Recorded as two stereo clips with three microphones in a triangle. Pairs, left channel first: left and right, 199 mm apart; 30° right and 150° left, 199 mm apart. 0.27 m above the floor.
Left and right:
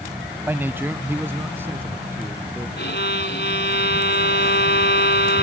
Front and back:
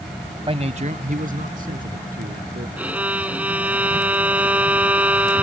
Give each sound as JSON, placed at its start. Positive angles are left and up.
{"t": 0.5, "sound": "a man speaking", "azimuth_deg": -165}
{"t": 2.8, "sound": "a violin", "azimuth_deg": 70}